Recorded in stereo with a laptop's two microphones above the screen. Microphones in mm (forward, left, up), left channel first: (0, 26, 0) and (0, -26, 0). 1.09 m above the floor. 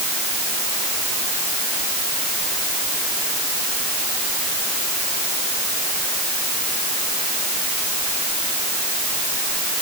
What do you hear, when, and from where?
Only background noise.